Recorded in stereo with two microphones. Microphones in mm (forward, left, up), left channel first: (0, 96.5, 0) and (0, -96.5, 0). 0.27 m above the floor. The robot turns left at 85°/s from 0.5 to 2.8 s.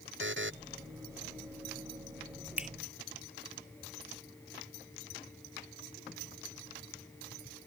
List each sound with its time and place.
0.2 s a buzzer: 85° right
2.6 s a finger snap: 10° right (ahead or behind); by 2.7 s centre (ahead or behind)